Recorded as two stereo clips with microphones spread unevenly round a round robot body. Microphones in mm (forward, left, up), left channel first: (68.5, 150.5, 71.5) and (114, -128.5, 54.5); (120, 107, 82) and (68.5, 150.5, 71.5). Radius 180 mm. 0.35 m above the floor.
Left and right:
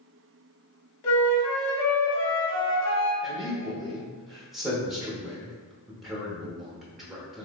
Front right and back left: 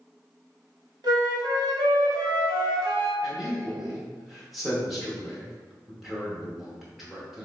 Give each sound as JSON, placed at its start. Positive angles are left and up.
{"t": 1.0, "sound": "a flute", "azimuth_deg": 120, "distance_m": 1.0}
{"t": 3.2, "sound": "a man speaking", "azimuth_deg": -160, "distance_m": 0.8}